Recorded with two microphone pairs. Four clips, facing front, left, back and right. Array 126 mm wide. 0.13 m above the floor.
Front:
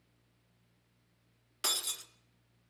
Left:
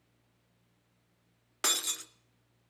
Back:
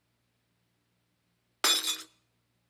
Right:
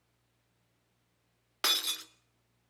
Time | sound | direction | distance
1.6 | breaking glass | straight behind | 0.6 m